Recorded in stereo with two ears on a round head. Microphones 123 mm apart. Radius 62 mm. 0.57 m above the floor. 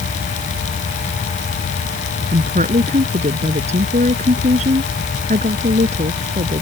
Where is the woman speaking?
55° right (ahead or behind).